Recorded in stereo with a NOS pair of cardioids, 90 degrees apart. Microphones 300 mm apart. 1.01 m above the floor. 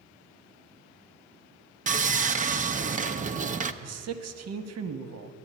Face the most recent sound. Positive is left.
turn(degrees=-55)